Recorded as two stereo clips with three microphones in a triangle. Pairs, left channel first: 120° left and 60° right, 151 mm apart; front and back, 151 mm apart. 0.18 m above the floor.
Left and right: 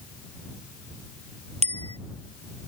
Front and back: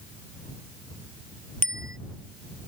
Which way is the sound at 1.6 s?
15° right.